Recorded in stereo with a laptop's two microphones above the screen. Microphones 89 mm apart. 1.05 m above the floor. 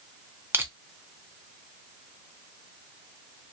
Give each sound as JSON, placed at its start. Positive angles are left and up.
{"t": 0.5, "sound": "crushing", "side_deg": -25, "distance_m": 0.6}